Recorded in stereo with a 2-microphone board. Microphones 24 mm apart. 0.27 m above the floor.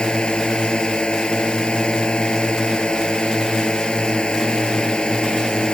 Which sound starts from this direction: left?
A drone, at 0.0 s.